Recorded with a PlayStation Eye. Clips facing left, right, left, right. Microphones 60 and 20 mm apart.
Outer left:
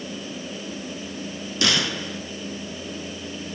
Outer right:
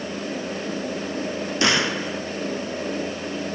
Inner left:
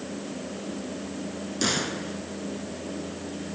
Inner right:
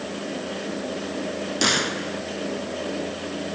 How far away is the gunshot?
About 0.9 m.